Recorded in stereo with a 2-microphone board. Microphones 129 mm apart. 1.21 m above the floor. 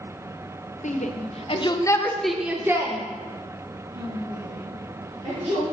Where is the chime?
No chime in this recording.